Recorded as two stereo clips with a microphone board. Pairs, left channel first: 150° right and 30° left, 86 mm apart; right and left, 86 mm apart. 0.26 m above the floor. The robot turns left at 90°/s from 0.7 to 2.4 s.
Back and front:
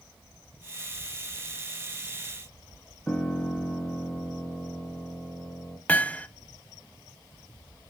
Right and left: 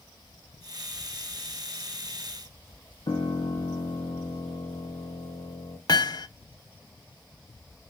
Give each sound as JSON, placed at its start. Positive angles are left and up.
{"t": 3.1, "sound": "a piano", "azimuth_deg": -70, "distance_m": 1.6}
{"t": 5.9, "sound": "hammering", "azimuth_deg": -85, "distance_m": 0.5}